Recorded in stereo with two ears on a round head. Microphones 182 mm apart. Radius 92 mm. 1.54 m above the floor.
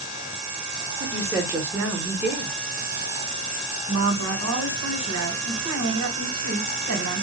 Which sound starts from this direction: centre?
A woman speaking, at 1.0 s.